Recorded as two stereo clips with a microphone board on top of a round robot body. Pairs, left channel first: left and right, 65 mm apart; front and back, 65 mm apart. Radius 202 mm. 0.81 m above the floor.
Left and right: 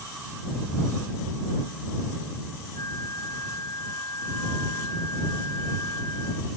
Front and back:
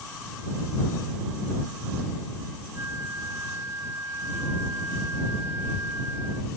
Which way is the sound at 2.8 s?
125° left.